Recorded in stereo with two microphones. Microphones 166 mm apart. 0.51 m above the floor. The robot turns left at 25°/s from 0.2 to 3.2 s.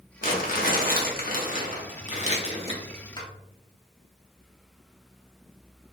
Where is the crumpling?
105° left, 0.7 m; by 3.3 s 30° left, 0.7 m.